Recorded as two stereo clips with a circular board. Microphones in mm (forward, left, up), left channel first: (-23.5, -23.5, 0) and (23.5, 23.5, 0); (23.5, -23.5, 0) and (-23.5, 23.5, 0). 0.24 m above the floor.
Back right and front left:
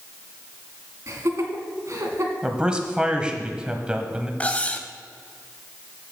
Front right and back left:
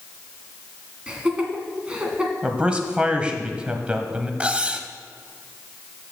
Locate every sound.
1.1 s laughter: 65° left, 2.0 m
2.4 s a man speaking: 95° left, 1.1 m
4.4 s cutlery clinking: 175° right, 0.6 m